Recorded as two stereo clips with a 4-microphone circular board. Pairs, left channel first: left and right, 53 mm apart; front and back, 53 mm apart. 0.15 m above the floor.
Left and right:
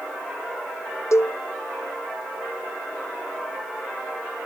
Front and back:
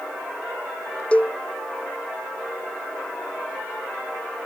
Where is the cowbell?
65° left.